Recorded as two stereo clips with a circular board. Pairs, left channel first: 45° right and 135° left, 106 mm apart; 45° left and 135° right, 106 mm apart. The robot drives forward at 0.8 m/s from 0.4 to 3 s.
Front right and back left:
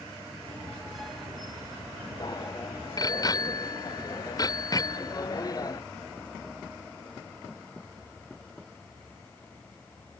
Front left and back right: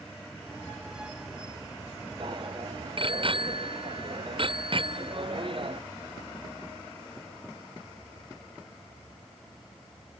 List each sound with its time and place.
2.2 s a bicycle bell: 95° right; by 5.8 s 100° right